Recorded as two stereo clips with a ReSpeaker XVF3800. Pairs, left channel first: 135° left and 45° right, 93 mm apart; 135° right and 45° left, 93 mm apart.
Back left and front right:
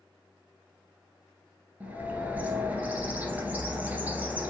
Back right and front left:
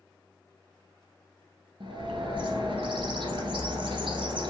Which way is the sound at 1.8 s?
25° left.